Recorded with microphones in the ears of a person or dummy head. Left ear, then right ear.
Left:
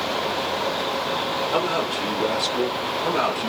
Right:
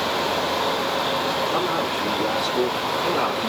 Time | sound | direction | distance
1.5 | a man speaking | 75° left (ahead or behind) | 5 m